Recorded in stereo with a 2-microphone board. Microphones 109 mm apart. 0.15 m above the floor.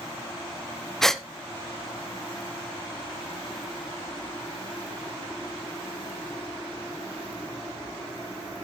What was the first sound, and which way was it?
A gasp, 5° left (ahead or behind).